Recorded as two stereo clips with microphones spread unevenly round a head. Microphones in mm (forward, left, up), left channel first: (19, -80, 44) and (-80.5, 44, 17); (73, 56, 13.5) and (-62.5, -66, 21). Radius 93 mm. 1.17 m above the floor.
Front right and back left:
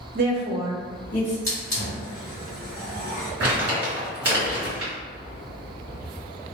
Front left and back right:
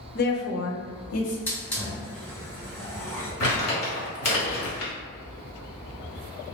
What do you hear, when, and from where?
0.1 s a woman speaking: 90° left, 0.5 m; by 1.4 s 25° left, 0.9 m
1.5 s a hiss: 40° right, 1.1 m
3.4 s crumpling: 45° left, 1.7 m